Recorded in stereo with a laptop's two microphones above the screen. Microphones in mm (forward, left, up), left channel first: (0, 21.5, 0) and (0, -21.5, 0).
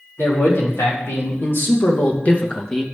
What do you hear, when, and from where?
0.2 s a man speaking: 70° left (ahead or behind), 3 m; by 2.8 s 10° left (ahead or behind), 1.3 m